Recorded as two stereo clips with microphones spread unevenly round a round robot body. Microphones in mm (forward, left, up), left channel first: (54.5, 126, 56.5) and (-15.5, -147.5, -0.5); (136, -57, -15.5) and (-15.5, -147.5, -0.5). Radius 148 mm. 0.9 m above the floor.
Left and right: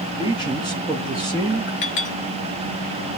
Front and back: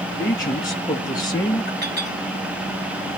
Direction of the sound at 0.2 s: 30° right.